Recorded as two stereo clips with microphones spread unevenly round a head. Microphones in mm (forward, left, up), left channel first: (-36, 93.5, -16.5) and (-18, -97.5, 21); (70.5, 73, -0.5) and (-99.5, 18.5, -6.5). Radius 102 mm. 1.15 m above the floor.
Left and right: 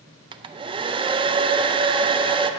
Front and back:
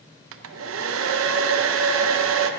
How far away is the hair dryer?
About 0.5 m.